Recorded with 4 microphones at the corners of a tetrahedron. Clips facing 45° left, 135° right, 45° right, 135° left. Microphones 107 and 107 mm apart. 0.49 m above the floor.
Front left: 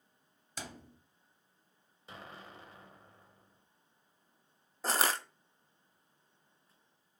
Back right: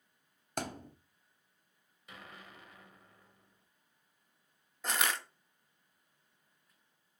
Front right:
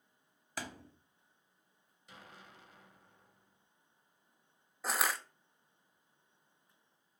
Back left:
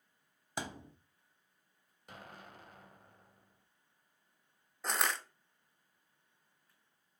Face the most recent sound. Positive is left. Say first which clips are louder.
# front left 3 dB, front right 1 dB
turn(degrees=35)